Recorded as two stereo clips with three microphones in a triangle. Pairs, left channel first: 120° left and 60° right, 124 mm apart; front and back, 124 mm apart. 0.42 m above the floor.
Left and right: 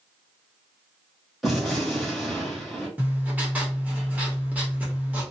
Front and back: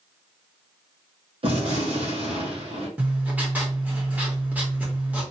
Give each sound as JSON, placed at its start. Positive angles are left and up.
{"t": 1.4, "sound": "a gunshot", "azimuth_deg": -150, "distance_m": 1.5}
{"t": 3.0, "sound": "writing", "azimuth_deg": -120, "distance_m": 1.3}